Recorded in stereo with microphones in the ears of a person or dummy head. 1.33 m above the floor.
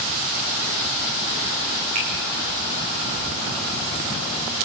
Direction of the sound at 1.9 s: 40° right (ahead or behind).